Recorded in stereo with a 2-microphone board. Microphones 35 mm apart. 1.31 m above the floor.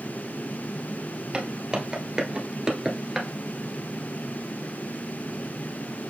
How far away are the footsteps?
About 1.7 m.